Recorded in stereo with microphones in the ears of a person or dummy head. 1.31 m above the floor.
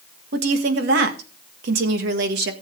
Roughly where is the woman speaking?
Right.